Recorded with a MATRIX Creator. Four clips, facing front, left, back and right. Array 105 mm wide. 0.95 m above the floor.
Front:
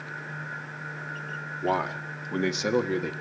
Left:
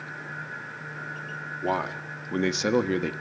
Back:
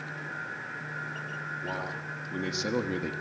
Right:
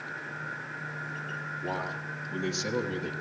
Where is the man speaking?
45° left, 2 m; by 3.1 s 90° left, 1.7 m.